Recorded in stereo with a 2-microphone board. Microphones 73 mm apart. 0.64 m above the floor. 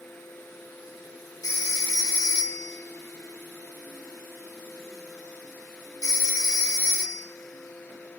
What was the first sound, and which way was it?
A phone ringing, 60° left (ahead or behind).